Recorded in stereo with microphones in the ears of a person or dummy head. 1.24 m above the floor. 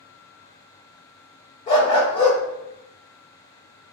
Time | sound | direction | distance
1.7 | a dog barking | 30° left (ahead or behind) | 1.0 m